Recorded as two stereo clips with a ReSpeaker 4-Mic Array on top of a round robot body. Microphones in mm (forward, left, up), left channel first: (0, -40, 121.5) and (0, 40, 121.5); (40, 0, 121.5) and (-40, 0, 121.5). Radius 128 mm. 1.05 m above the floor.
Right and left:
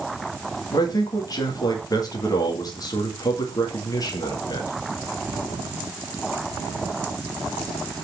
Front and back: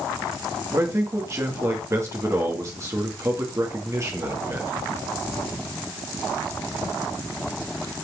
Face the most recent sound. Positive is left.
turn(degrees=-130)